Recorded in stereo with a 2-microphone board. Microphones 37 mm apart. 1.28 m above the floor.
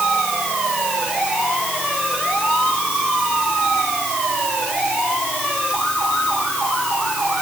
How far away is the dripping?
No dripping in this recording.